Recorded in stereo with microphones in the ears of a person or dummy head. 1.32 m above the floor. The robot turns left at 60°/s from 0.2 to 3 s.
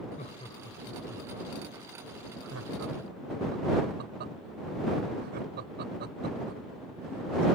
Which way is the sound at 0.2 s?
40° left (ahead or behind).